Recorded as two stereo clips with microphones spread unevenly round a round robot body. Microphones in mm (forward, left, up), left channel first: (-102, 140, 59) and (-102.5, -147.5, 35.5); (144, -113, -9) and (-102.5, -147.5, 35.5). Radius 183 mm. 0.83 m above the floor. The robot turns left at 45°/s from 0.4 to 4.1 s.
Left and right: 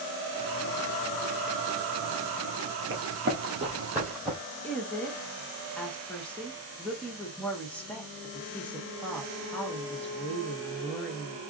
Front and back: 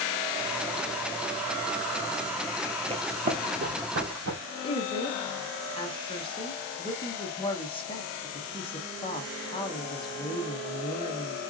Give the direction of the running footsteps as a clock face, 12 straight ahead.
4 o'clock.